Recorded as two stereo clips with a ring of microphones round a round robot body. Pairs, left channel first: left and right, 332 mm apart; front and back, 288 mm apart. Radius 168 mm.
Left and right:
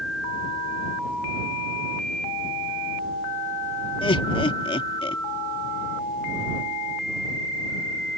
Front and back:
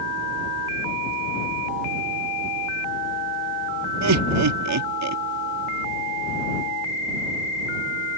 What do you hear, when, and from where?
4.0 s laughter: 165° left